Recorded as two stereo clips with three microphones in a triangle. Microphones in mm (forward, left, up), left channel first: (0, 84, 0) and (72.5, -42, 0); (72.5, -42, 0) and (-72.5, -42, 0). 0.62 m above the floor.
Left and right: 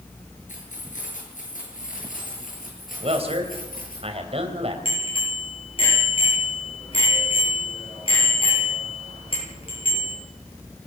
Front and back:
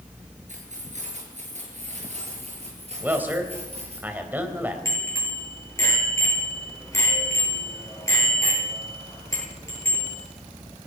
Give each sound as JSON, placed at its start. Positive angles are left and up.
{"t": 0.5, "sound": "keys jangling", "azimuth_deg": 150, "distance_m": 6.5}
{"t": 3.0, "sound": "a man speaking", "azimuth_deg": -105, "distance_m": 4.0}
{"t": 4.8, "sound": "a bicycle bell", "azimuth_deg": 70, "distance_m": 9.5}